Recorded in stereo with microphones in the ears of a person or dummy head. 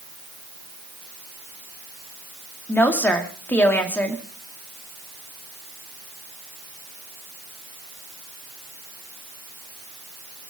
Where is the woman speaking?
10° left (ahead or behind), 2.5 m.